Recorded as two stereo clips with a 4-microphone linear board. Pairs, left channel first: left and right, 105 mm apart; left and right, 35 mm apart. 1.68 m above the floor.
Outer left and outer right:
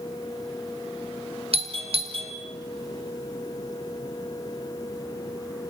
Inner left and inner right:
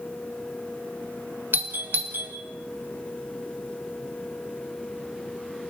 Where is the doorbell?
65° right (ahead or behind), 2.5 m.